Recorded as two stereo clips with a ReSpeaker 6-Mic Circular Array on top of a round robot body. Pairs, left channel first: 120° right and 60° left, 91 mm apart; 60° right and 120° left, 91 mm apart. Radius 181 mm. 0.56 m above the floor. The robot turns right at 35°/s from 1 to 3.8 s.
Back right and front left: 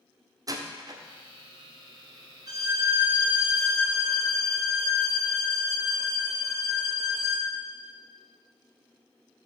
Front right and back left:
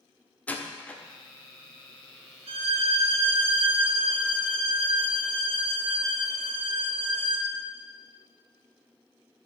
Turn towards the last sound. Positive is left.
turn(degrees=155)